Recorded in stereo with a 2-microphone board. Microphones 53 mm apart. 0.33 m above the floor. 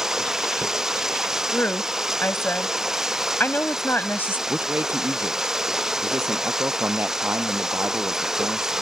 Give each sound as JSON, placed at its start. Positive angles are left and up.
{"t": 0.0, "sound": "running water", "side_deg": -10}
{"t": 1.5, "sound": "a woman speaking", "side_deg": 40}
{"t": 4.5, "sound": "a man speaking", "side_deg": -40}